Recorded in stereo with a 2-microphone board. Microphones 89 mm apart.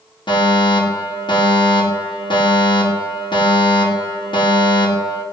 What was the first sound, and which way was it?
A fire alarm, 65° left (ahead or behind).